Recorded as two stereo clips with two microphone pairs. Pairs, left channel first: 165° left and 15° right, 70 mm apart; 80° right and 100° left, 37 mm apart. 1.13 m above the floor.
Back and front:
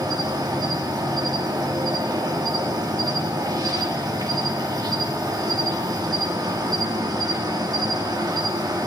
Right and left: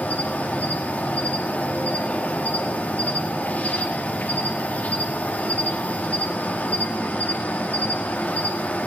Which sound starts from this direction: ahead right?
An insect, at 0.0 s.